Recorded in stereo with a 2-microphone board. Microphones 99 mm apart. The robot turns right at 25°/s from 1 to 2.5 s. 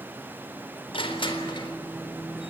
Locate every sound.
0.9 s crushing: 65° left (ahead or behind), 4 m; by 1.7 s 50° left (ahead or behind), 4 m